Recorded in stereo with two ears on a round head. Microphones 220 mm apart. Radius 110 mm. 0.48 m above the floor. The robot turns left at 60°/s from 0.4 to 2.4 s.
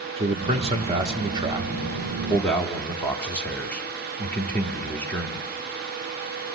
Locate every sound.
0.2 s a man speaking: 25° right (ahead or behind), 0.8 m; by 5.5 s 5° left (ahead or behind), 0.8 m